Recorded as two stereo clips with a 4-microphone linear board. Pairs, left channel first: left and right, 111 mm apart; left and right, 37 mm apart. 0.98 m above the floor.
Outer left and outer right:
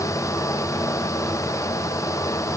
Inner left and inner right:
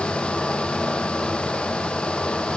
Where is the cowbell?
I don't hear a cowbell.